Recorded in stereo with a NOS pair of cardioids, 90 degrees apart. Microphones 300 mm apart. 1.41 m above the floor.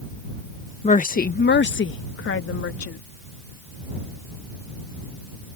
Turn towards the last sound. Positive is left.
turn(degrees=45)